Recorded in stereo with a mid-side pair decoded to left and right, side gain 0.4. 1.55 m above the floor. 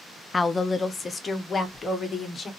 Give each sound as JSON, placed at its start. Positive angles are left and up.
{"t": 0.3, "sound": "a woman speaking", "azimuth_deg": 25, "distance_m": 0.6}